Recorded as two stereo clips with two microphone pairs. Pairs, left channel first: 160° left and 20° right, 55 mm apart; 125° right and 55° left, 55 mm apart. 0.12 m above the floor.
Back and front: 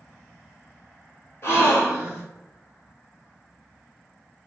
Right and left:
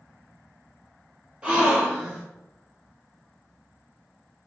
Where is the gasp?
125° left, 1.4 m.